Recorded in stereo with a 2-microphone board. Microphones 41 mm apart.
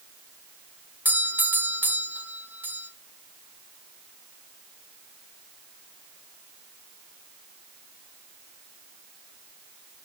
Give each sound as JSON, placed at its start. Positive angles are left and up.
{"t": 1.1, "sound": "a doorbell", "side_deg": -50, "distance_m": 2.0}